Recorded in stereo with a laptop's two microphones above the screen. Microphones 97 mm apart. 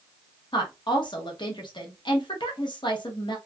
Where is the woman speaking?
55° left (ahead or behind), 0.9 m.